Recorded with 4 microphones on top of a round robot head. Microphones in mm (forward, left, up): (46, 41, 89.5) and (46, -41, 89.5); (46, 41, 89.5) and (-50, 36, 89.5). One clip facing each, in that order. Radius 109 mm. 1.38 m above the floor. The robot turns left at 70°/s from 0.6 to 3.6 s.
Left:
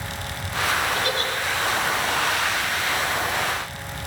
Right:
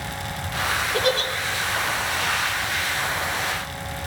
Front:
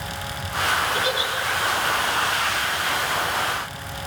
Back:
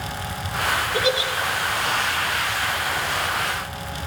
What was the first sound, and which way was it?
A giggle, 115° right.